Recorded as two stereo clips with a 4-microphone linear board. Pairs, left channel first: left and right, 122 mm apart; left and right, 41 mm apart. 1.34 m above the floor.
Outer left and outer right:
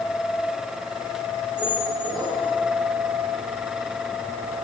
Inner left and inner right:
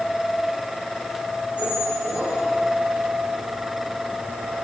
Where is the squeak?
30° right (ahead or behind), 4.5 m.